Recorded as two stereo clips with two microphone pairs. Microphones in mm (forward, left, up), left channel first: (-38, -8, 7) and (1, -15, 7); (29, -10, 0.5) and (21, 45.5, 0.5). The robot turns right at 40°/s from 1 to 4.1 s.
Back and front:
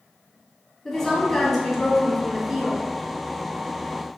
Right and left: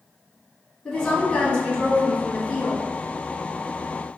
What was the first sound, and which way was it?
A woman speaking, 130° right.